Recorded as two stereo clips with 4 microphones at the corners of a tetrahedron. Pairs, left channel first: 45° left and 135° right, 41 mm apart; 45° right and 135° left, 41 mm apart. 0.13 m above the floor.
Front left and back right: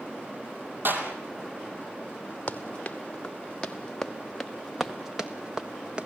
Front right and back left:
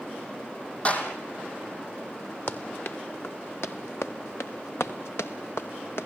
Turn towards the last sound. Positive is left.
turn(degrees=-70)